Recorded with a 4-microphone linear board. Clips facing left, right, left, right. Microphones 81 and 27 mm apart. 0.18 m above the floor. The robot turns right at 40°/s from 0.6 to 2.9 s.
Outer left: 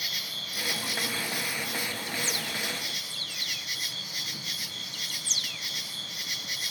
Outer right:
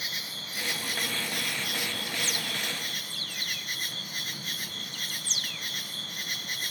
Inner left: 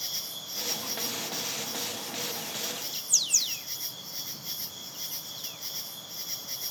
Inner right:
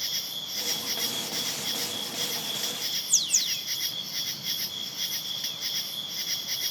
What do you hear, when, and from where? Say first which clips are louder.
0.0 s an insect: even, inner right 4 dB; 140° right, 0.9 m; by 6.7 s 50° right, 0.9 m